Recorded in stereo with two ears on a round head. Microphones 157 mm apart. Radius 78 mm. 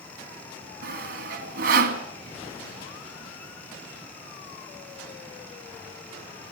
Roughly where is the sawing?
Right.